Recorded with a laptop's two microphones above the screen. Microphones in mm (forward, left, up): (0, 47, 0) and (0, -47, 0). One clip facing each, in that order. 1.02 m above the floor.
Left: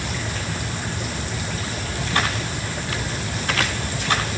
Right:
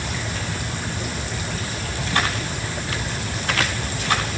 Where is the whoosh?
I don't hear a whoosh.